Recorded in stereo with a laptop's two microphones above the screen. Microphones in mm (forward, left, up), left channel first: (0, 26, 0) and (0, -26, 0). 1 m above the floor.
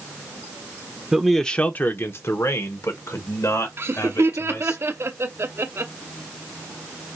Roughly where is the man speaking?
Centre.